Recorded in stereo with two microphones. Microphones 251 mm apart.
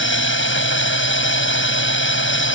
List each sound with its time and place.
0.0 s a drone: 50° left (ahead or behind)